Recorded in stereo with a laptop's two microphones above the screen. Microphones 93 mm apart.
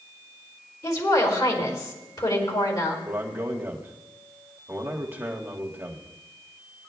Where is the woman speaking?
50° left (ahead or behind), 4 m.